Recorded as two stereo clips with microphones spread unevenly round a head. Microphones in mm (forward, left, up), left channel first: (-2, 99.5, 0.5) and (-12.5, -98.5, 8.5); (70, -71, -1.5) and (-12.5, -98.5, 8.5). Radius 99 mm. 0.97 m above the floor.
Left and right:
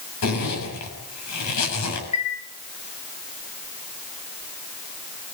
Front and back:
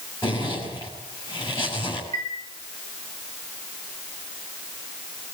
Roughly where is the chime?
Behind left.